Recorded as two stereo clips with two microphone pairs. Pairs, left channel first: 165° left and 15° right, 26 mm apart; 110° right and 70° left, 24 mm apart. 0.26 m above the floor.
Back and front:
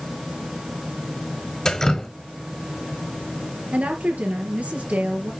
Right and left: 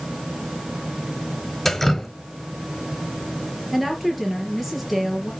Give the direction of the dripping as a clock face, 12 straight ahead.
6 o'clock.